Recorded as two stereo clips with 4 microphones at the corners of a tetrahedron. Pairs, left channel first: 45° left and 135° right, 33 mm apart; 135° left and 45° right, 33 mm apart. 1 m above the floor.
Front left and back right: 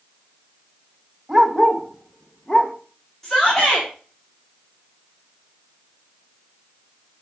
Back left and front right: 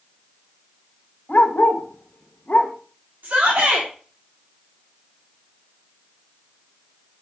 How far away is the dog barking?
About 1.5 m.